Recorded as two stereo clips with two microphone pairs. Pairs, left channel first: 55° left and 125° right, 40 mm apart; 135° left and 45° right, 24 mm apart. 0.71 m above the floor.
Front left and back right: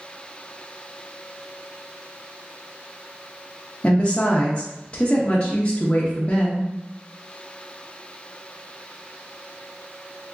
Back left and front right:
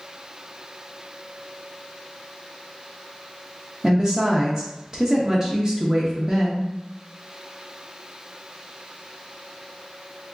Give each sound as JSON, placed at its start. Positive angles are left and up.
{"t": 3.8, "sound": "a woman speaking", "azimuth_deg": 5, "distance_m": 0.5}